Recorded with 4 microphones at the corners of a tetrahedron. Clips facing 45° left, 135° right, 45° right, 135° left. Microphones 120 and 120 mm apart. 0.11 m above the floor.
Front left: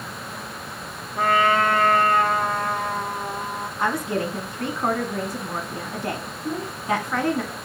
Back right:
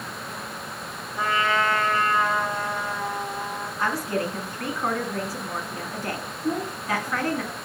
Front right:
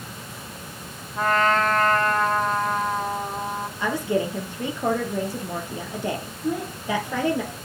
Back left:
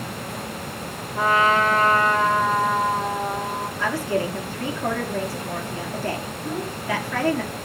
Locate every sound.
1.2 s a trumpet: 55° left, 0.9 m
3.8 s a woman speaking: 5° left, 1.1 m
6.4 s a child speaking: 110° right, 6 m